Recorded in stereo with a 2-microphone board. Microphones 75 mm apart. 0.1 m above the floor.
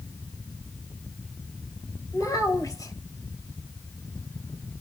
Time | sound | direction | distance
2.1 | a child speaking | 50° left (ahead or behind) | 1.7 m